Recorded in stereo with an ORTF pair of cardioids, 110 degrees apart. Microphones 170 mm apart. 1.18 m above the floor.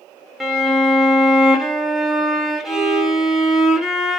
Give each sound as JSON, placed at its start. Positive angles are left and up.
{"t": 0.4, "sound": "a violin", "azimuth_deg": 0, "distance_m": 0.6}